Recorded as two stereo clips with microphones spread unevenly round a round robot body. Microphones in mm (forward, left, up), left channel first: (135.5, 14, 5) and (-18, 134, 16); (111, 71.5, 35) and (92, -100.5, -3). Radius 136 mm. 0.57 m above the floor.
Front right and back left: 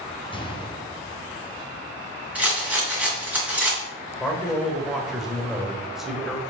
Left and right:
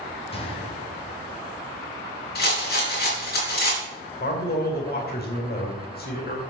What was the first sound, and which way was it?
A gunshot, 25° left.